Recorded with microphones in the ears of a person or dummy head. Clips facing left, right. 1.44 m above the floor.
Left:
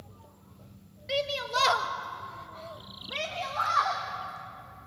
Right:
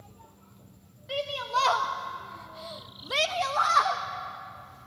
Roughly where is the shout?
Left.